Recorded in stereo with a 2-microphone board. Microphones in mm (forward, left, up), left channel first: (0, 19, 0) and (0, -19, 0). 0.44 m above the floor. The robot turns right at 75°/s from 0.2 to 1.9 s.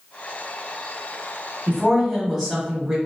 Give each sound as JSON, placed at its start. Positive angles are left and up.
{"t": 1.7, "sound": "a woman speaking", "side_deg": -20, "distance_m": 0.9}